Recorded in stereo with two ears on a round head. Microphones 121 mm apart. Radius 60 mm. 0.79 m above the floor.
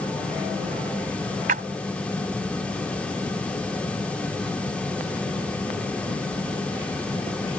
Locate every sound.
1.5 s a splash: 65° right (ahead or behind)